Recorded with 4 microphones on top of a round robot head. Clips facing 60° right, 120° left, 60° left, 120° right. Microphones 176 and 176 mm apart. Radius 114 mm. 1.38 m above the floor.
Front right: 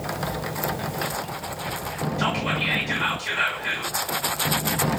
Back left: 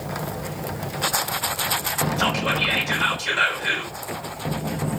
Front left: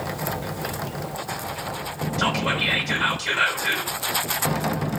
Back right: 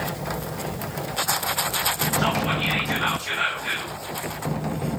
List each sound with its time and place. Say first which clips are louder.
2.2 s whispering: back left 2 dB, back right 1 dB; 80° left, 7 m